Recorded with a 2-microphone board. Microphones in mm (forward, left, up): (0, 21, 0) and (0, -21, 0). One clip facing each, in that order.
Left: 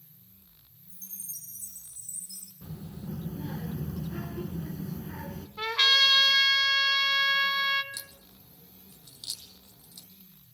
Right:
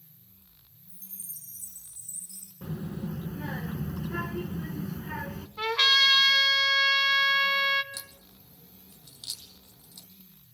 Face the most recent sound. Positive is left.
turn(degrees=-20)  # may be behind; listen again after turning